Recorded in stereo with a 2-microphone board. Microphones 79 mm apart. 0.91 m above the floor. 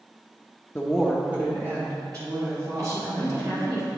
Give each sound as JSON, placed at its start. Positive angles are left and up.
{"t": 0.8, "sound": "a woman speaking", "side_deg": 20, "distance_m": 0.7}
{"t": 2.8, "sound": "a woman speaking", "side_deg": -40, "distance_m": 2.5}